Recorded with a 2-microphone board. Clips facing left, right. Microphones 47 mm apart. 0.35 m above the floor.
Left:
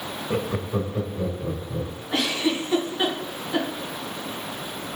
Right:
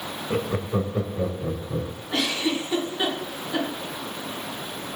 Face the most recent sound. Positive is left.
turn(degrees=15)  # may be behind; listen again after turning